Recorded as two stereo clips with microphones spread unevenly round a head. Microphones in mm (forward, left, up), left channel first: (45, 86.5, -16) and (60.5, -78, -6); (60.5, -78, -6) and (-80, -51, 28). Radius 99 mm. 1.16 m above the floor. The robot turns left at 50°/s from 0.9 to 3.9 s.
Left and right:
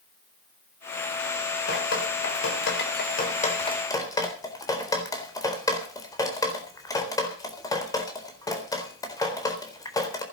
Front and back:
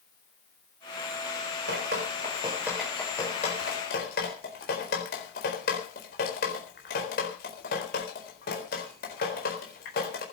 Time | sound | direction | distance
1.7 | dripping | 135° left | 4 m